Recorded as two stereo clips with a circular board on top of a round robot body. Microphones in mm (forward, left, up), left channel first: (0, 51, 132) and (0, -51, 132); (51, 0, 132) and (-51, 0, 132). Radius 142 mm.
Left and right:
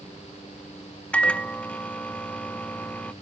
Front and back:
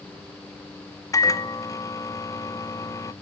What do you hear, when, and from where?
1.1 s a microwave: 20° left, 0.7 m